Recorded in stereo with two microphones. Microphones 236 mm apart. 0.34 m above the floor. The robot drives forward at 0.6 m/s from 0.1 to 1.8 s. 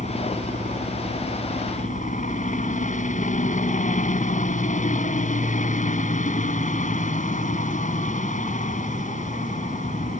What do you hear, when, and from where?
0.0 s a helicopter: 30° left (ahead or behind)